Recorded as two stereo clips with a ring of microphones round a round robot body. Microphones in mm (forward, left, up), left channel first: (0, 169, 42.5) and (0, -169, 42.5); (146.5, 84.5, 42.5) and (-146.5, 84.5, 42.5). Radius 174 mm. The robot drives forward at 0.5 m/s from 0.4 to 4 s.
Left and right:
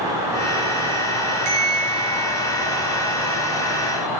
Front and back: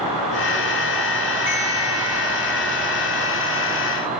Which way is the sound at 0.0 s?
170° right.